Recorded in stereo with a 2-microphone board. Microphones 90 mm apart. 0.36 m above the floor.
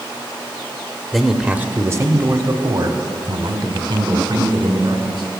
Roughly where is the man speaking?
Centre.